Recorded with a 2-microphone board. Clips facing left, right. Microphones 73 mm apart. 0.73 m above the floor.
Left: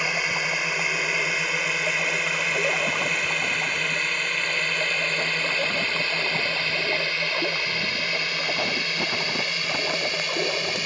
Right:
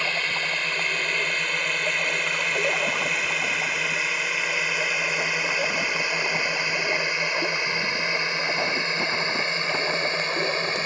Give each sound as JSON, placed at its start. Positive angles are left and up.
{"t": 0.0, "sound": "a drone", "side_deg": 10}